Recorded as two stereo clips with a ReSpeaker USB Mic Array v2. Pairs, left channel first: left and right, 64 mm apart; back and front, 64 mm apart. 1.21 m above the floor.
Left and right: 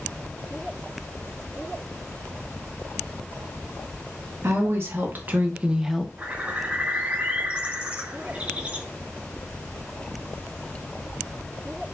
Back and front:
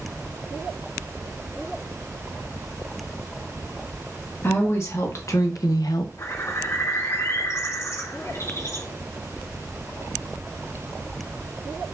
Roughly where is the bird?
Behind right.